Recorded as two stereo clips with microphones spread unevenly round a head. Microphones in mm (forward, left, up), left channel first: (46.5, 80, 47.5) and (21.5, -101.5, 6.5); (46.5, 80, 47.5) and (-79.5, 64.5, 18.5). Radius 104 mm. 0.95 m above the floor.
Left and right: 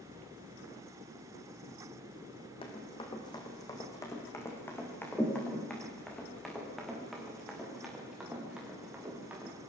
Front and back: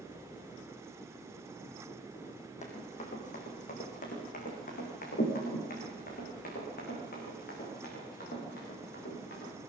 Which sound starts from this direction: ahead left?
Running footsteps, at 2.6 s.